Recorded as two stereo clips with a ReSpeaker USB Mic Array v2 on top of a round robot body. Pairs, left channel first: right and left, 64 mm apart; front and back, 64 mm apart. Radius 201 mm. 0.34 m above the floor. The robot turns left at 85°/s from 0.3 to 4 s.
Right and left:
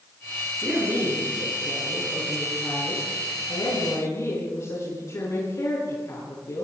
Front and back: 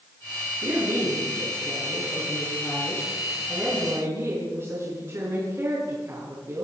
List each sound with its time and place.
0.6 s a woman speaking: 155° left, 8.5 m; by 6.6 s 130° right, 8.5 m